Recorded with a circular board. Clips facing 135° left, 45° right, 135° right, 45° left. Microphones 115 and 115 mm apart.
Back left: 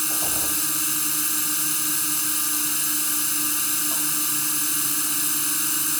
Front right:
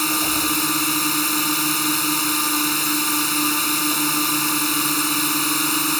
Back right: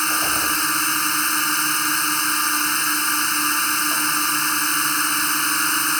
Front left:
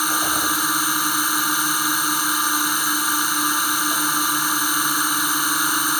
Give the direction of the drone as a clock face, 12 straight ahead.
1 o'clock.